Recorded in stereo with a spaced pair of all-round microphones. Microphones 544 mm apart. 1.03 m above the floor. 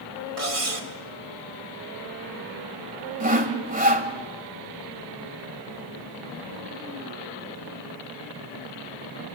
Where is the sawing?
15° right (ahead or behind), 1.8 m.